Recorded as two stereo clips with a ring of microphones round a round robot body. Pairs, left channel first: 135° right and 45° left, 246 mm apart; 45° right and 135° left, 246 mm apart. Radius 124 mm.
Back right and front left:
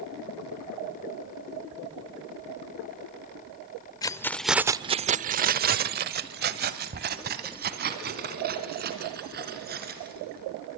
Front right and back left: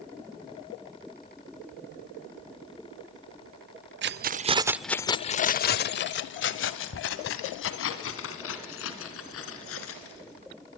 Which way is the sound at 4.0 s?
155° left.